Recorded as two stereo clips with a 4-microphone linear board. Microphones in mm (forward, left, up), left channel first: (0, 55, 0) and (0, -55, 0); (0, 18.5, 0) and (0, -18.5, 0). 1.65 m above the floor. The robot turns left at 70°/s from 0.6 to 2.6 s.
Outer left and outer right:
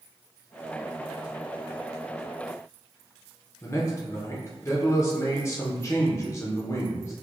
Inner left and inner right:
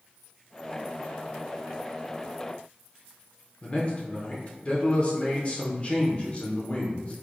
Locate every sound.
3.6 s a man speaking: 25° left (ahead or behind), 0.7 m